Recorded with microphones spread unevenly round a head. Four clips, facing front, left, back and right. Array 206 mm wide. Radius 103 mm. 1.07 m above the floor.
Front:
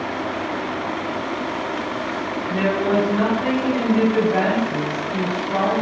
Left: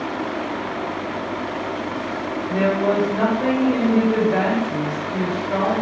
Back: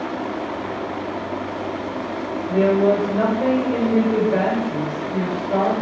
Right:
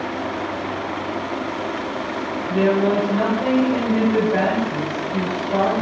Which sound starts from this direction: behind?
A woman speaking, at 2.5 s.